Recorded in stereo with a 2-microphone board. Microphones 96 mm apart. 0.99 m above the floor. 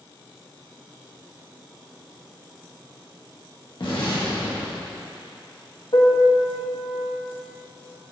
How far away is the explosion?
About 1.6 m.